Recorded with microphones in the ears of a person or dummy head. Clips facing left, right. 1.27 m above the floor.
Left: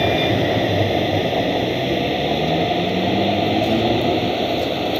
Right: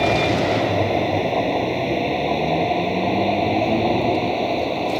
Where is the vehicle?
15° left (ahead or behind).